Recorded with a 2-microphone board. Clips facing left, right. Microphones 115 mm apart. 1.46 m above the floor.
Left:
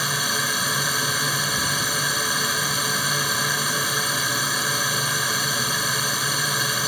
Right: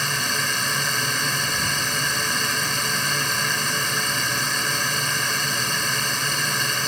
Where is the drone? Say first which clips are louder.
Even; 10° left (ahead or behind).